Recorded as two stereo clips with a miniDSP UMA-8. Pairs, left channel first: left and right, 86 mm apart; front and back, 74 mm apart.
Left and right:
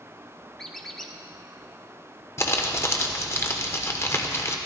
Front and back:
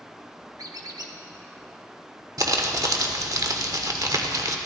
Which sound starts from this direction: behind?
A squeak, at 0.6 s.